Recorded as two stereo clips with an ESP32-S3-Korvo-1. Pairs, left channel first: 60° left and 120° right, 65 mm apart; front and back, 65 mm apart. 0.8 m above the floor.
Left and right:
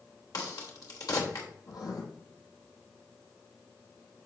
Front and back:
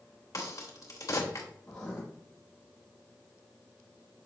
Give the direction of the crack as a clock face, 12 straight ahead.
11 o'clock.